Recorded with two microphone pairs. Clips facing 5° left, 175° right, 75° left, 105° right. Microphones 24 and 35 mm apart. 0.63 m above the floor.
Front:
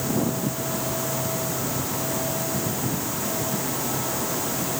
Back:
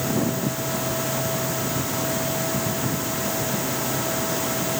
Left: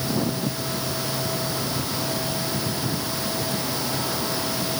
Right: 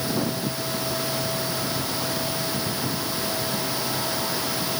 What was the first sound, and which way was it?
Only background noise.